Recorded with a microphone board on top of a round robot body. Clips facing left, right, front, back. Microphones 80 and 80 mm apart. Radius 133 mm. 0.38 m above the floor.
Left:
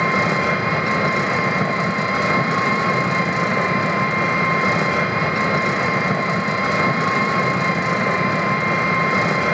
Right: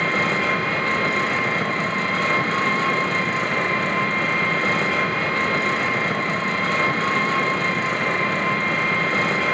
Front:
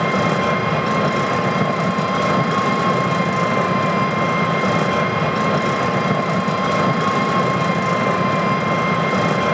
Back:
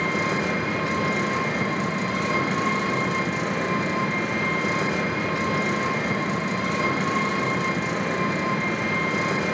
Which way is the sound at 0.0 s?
15° left.